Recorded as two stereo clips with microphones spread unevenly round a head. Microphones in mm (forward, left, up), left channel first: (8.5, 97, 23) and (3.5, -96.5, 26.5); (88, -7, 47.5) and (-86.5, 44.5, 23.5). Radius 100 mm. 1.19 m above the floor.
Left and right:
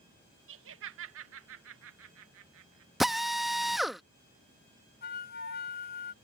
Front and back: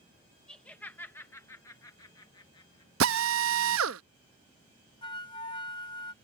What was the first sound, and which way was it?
Laughter, 105° right.